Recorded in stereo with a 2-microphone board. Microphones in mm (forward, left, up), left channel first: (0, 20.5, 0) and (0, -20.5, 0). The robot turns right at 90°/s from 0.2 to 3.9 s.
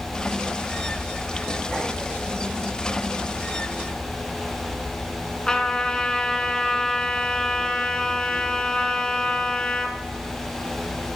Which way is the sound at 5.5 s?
20° left (ahead or behind).